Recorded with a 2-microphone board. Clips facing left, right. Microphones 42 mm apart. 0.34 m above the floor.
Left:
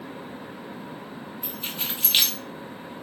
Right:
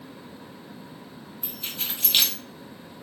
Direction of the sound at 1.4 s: 10° left (ahead or behind).